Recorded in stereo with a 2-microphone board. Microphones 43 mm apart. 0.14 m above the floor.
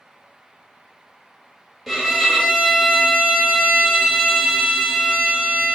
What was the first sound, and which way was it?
A violin, centre (ahead or behind).